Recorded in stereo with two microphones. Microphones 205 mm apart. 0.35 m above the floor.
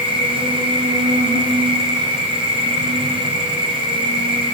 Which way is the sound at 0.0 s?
60° right (ahead or behind).